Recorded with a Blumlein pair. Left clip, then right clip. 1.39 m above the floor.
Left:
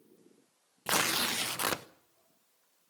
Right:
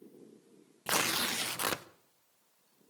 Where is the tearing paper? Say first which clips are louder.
Left 2 dB; 5° left, 0.6 m.